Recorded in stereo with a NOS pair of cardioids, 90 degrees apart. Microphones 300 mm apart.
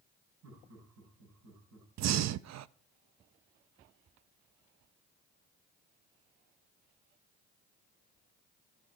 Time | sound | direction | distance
0.4 | laughter | 65° right | 9 m
2.0 | breathing | 60° right | 0.6 m